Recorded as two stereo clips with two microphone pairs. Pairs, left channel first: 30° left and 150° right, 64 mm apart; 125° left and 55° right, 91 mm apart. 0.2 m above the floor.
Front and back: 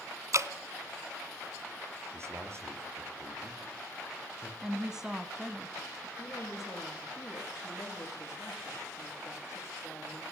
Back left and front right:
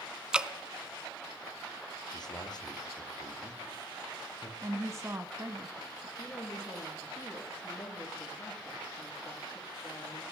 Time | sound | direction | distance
0.3 | dripping | 135° right | 0.9 m
2.1 | a man speaking | 160° left | 5 m
4.6 | a woman speaking | 80° right | 1.3 m
6.2 | a woman speaking | 70° left | 9.5 m